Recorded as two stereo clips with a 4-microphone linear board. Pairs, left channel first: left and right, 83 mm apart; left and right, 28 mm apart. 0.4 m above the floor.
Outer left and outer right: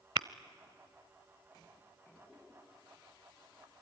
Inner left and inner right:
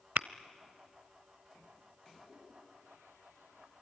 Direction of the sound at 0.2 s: 70° right (ahead or behind).